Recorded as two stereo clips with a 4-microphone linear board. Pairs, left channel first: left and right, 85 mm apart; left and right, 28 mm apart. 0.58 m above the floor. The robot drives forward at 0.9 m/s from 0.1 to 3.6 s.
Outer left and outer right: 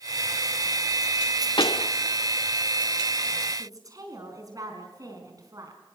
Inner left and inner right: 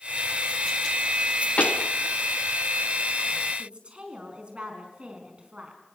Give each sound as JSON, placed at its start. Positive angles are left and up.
{"t": 1.6, "sound": "a pop", "side_deg": 65, "distance_m": 0.6}
{"t": 3.6, "sound": "a woman speaking", "side_deg": -45, "distance_m": 4.5}